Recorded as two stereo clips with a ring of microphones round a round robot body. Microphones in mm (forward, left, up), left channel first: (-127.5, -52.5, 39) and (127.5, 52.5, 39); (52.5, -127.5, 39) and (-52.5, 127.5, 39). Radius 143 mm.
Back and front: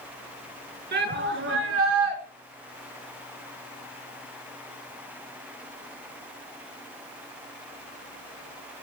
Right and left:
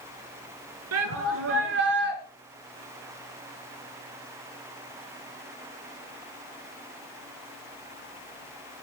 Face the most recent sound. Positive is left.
turn(degrees=55)